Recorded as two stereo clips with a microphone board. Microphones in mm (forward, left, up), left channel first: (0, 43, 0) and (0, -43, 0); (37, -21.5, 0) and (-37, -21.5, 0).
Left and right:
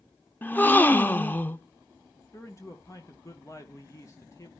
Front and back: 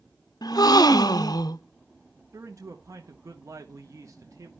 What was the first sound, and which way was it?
A gasp, 20° left.